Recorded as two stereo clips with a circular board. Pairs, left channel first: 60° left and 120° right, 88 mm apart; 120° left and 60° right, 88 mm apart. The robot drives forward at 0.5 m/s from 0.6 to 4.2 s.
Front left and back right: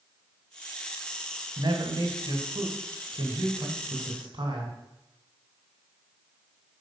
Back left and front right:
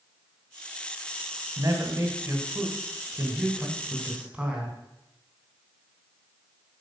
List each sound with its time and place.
1.6 s a man speaking: 105° right, 1.8 m; by 4.8 s 135° right, 2.5 m